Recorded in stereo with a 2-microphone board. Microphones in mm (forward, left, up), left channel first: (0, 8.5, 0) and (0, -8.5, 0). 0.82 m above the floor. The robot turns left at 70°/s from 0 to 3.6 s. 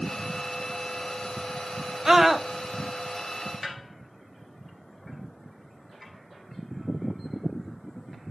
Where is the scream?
20° right (ahead or behind), 0.6 m; by 2.5 s centre (ahead or behind), 0.6 m.